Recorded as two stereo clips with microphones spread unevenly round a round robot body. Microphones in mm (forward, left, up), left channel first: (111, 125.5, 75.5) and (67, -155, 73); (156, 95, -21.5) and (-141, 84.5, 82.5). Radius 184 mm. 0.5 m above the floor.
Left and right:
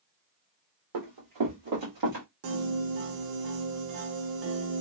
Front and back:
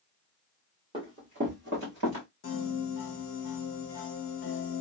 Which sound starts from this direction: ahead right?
A piano, at 2.4 s.